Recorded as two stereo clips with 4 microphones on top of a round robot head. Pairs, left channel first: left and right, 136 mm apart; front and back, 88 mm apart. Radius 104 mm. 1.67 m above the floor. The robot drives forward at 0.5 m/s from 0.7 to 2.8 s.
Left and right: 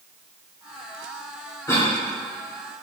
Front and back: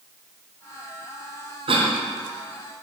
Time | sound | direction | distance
1.7 | a cough | 165° left | 1.4 m